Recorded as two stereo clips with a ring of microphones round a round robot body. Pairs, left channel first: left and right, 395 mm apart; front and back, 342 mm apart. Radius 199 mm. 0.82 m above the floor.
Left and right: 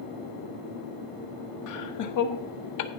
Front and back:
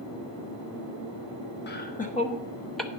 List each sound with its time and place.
1.7 s laughter: 55° left, 1.2 m; by 2.9 s 95° left, 0.9 m